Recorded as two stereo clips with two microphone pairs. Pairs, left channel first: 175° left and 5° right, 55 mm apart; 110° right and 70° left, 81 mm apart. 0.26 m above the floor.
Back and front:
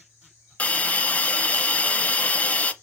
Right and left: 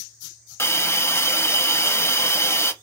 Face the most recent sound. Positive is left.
turn(degrees=-145)